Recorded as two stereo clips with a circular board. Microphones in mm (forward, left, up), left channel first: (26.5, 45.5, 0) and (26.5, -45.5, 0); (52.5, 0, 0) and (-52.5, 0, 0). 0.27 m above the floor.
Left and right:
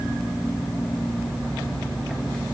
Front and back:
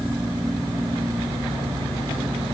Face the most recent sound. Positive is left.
No sound to turn to.